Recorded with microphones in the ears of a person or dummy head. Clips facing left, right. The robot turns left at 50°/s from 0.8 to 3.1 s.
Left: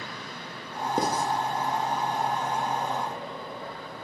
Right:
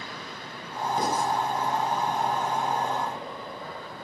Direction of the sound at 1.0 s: 55° left (ahead or behind).